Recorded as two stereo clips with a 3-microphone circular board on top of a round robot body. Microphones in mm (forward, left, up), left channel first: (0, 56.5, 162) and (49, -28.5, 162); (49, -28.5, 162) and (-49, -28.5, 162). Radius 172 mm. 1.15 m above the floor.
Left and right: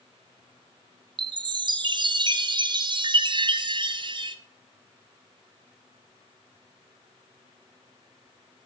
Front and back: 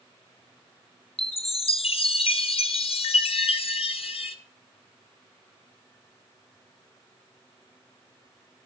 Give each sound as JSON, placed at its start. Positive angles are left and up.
{"t": 1.2, "sound": "a chime", "azimuth_deg": -20, "distance_m": 0.9}